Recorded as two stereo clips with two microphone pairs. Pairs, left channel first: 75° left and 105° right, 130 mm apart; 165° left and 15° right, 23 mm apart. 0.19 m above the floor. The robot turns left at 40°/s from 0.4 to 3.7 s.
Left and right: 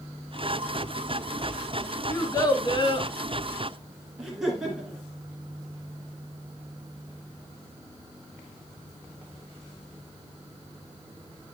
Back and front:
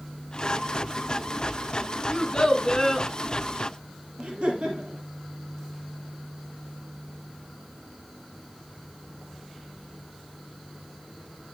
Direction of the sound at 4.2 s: 15° right.